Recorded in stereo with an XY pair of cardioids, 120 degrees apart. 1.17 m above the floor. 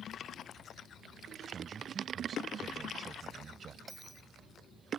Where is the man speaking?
40° right.